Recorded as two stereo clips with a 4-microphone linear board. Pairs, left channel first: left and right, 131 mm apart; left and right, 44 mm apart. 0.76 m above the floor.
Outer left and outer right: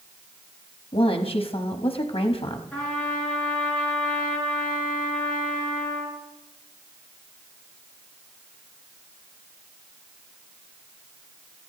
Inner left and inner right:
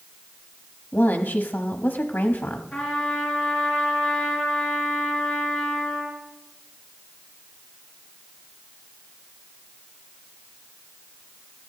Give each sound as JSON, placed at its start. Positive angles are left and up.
{"t": 0.9, "sound": "a woman speaking", "side_deg": 45, "distance_m": 1.0}
{"t": 2.7, "sound": "a trumpet", "side_deg": 10, "distance_m": 5.0}